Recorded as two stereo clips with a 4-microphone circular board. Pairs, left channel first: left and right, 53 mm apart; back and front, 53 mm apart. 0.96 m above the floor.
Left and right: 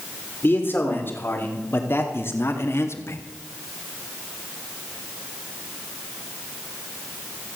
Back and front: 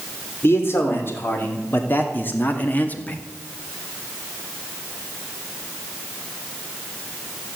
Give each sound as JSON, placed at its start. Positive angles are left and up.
{"t": 0.4, "sound": "a man speaking", "azimuth_deg": 140, "distance_m": 3.5}